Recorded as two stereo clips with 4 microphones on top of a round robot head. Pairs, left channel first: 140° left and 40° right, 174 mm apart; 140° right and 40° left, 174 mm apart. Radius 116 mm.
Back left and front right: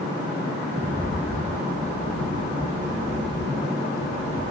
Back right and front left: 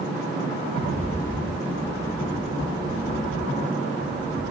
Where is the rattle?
90° right, 2 m.